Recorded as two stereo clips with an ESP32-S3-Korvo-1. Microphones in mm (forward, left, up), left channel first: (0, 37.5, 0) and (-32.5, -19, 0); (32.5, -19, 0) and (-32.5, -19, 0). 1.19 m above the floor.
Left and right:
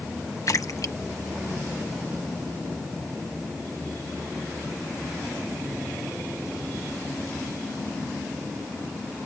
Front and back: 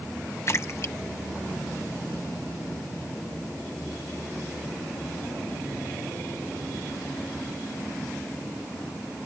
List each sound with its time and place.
0.5 s a splash: 40° left